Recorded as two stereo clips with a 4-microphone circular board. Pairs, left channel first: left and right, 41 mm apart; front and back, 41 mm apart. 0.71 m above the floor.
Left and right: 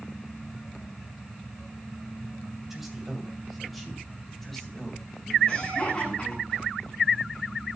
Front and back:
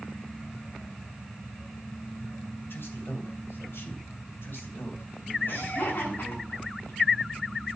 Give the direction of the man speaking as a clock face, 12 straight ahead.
12 o'clock.